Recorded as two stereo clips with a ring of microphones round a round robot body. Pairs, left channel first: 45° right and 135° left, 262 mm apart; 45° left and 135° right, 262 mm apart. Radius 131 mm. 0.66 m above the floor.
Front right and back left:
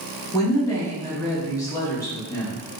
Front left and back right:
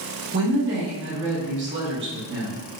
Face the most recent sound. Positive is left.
turn(degrees=-120)